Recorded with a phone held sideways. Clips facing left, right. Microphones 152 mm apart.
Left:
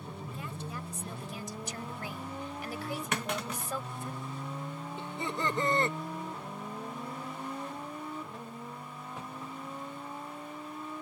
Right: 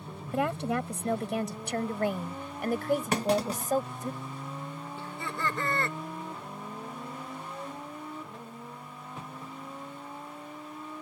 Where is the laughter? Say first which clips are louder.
Left 1 dB; 20° left (ahead or behind).